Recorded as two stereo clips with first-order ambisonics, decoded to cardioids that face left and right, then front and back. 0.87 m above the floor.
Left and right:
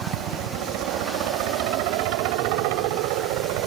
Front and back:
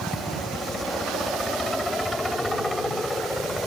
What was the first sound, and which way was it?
A helicopter, 80° right.